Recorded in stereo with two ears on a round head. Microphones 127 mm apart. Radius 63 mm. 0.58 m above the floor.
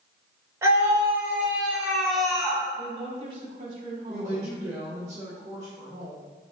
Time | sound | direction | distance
0.6 | a scream | 20° right (ahead or behind) | 2.5 m
2.8 | a woman speaking | 40° right (ahead or behind) | 1.8 m
4.1 | a woman speaking | 25° right (ahead or behind) | 2 m